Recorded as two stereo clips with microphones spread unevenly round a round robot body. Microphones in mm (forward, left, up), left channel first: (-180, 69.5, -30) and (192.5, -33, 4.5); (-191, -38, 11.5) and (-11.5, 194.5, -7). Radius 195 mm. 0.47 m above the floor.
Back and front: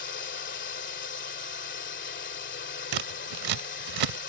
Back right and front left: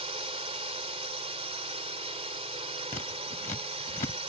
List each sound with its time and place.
0.0 s a drone: 110° left
2.9 s scissors: 55° right